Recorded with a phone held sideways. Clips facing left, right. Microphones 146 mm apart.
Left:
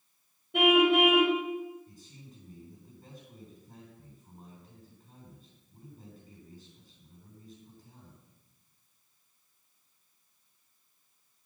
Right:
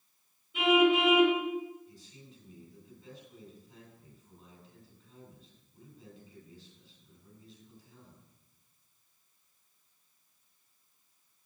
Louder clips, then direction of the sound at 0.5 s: Left 2 dB; 70° left (ahead or behind).